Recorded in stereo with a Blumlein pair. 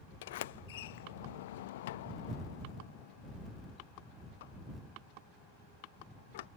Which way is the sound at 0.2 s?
55° left.